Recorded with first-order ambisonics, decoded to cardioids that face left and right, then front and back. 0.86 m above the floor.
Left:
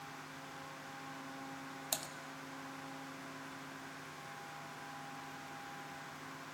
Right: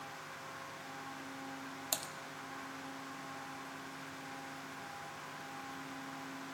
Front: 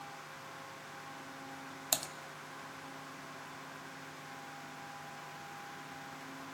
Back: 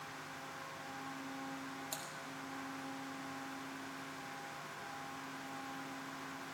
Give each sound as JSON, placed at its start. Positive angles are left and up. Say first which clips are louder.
{"t": 1.9, "sound": "typing on a keyboard", "louder": "right 1 dB, front 13 dB", "azimuth_deg": -5, "distance_m": 0.6}